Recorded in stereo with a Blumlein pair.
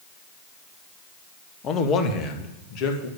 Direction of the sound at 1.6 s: 25° left.